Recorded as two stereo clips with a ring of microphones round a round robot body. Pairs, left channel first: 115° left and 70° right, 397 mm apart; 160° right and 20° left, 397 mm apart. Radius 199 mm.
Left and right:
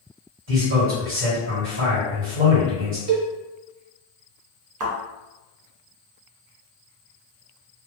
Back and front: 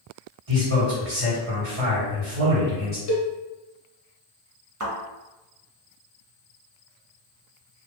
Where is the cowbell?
110° right, 0.8 m.